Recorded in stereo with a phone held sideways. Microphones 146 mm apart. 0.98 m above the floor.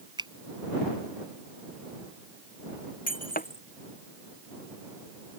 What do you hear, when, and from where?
0.2 s a finger snap: 30° right (ahead or behind)
3.1 s breaking glass: 70° left (ahead or behind)